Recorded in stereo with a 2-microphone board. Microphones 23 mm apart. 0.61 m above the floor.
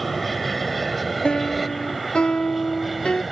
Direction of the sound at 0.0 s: Centre (ahead or behind).